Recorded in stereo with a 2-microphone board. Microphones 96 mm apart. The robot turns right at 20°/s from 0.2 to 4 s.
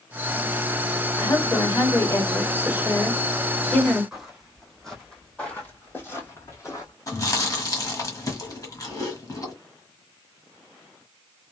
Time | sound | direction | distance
1.2 | a woman speaking | 125° left | 1.3 m
4.1 | footsteps | 5° right (ahead or behind) | 2 m
7.1 | chewing | 35° left (ahead or behind) | 1.3 m